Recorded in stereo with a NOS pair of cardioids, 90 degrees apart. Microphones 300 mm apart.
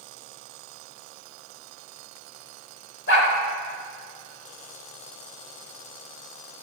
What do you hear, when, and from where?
3.1 s a dog barking: 40° left, 3 m